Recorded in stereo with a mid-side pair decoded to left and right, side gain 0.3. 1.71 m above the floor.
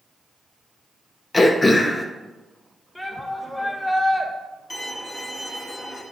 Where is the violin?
35° left, 1.9 m.